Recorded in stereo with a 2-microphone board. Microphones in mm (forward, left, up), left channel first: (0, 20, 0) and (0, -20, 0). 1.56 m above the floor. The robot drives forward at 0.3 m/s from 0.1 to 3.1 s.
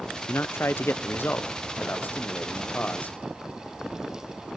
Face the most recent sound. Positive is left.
turn(degrees=35)  # may be behind; listen again after turning